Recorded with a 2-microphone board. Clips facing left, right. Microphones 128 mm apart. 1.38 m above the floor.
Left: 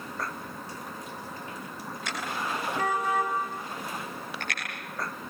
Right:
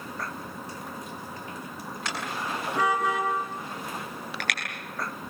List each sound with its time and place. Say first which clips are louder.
2.0 s a car horn: even; 80° right, 8 m; by 4.6 s 85° right, 12 m